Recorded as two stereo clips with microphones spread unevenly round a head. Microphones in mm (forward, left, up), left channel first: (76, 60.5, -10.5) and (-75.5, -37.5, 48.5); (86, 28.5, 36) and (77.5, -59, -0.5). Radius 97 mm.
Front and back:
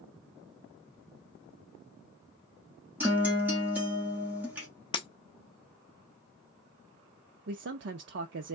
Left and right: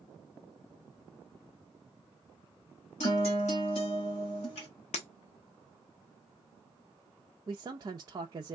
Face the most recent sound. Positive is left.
turn(degrees=-110)